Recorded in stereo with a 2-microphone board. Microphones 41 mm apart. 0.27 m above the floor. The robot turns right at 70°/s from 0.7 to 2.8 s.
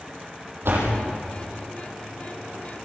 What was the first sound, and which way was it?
A door slam, 70° right (ahead or behind).